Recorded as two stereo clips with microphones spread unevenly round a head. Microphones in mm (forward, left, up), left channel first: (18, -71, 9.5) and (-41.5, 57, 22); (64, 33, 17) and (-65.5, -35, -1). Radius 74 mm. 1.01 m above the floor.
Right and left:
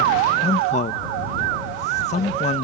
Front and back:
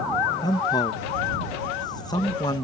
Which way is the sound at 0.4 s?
35° right.